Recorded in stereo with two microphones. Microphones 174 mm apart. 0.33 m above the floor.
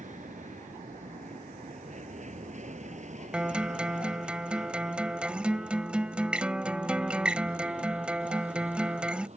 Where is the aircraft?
45° right (ahead or behind); by 9.4 s 40° right (ahead or behind).